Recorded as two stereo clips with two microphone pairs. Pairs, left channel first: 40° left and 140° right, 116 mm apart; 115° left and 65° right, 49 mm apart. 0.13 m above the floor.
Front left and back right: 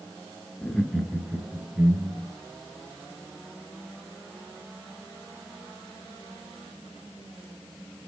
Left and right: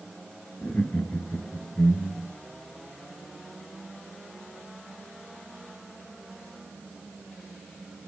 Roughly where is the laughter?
Behind left.